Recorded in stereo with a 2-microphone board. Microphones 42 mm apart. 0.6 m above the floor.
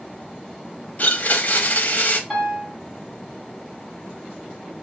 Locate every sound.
1.0 s a blender: 45° left (ahead or behind), 0.6 m
2.3 s a piano: 5° left (ahead or behind), 1.8 m